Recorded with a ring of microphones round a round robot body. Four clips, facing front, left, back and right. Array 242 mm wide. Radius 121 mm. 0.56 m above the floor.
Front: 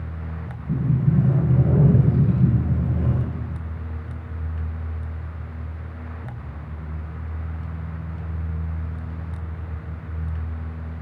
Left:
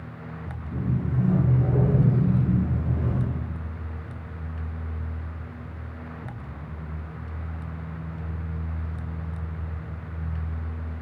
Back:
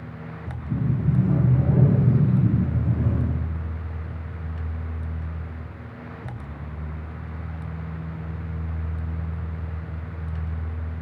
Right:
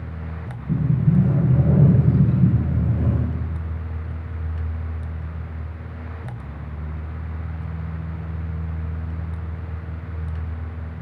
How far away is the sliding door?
About 8.5 m.